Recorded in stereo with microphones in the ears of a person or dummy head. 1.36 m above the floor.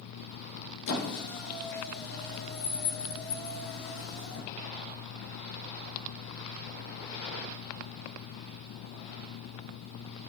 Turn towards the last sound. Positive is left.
turn(degrees=45)  # may be behind; listen again after turning